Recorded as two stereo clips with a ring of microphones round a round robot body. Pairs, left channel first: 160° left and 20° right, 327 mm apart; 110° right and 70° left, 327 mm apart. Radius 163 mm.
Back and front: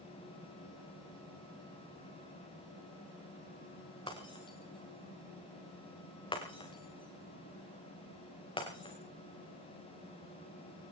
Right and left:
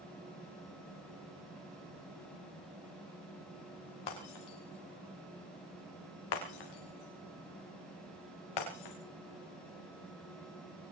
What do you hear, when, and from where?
4.1 s breaking glass: 125° right, 5 m